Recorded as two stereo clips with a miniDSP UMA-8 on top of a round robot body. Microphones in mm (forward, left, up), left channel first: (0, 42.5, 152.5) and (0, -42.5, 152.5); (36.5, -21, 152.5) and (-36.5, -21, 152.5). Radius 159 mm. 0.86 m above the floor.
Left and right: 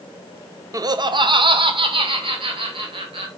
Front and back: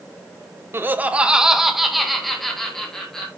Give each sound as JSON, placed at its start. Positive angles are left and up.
{"t": 0.7, "sound": "laughter", "azimuth_deg": -130, "distance_m": 0.8}